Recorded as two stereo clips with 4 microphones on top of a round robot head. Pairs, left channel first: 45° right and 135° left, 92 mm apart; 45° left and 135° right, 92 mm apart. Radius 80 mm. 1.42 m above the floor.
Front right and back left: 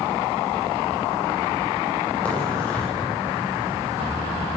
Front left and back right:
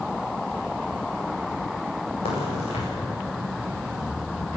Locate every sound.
2.2 s a crack: 35° left, 8 m